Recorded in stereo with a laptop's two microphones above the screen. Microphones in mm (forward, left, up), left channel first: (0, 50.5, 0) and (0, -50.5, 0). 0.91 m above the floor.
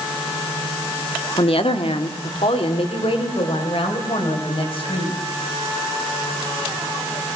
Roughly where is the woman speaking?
Left.